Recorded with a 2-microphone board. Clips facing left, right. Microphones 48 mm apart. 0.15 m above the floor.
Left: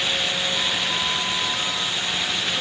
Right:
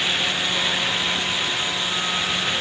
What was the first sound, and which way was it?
Only background noise.